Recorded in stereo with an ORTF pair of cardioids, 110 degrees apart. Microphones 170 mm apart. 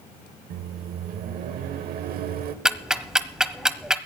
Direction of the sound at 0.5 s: 70° right.